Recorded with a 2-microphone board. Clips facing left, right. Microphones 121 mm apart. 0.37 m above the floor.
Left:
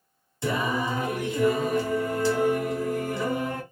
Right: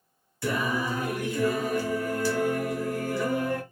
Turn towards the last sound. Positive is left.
turn(degrees=20)  # may be behind; listen again after turning